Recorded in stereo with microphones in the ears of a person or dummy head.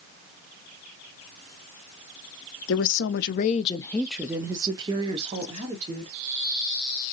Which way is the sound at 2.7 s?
75° left (ahead or behind).